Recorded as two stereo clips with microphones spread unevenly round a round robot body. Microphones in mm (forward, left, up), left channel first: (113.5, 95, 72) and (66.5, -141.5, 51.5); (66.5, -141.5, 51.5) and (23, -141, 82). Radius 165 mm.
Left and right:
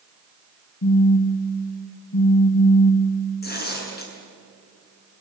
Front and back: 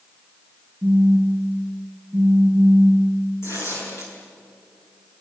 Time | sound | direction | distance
0.8 | a phone buzzing | 110° left | 1.4 m
3.4 | tearing paper | 30° left | 7.5 m